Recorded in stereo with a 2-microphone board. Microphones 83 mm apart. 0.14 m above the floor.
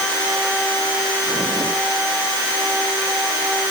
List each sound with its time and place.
Only background noise.